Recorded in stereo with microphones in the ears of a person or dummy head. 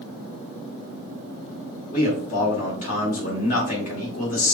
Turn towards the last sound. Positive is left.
turn(degrees=50)  # may be behind; listen again after turning